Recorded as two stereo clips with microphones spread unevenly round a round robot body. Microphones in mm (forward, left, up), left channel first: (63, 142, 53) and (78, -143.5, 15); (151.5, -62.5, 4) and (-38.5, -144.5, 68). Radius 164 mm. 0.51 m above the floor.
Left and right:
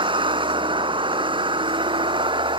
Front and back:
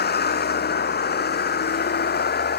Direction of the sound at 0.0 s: 15° right.